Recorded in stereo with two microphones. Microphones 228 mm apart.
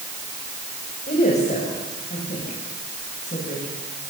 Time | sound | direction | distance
1.1 | a woman speaking | 40° left (ahead or behind) | 6.5 m